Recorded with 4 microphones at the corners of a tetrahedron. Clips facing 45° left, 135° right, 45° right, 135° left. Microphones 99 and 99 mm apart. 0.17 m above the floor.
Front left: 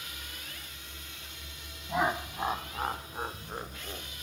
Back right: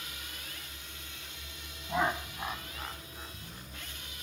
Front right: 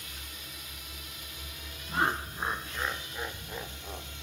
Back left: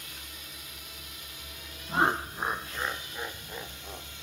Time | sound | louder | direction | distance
1.9 | laughter | front left 1 dB, back left 3 dB | 135° left | ?